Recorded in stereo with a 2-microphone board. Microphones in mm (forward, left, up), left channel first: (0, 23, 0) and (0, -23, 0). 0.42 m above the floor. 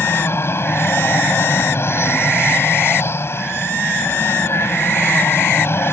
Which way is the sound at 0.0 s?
60° left (ahead or behind).